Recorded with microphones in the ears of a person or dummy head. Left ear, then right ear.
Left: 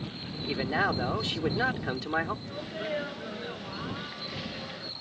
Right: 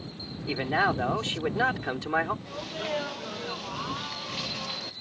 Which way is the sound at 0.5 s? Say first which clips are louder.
Right 3 dB; 30° right (ahead or behind).